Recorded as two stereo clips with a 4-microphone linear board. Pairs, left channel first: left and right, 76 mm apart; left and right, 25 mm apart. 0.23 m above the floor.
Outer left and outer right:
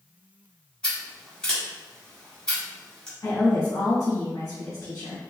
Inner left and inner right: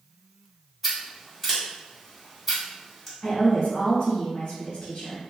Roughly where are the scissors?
Centre.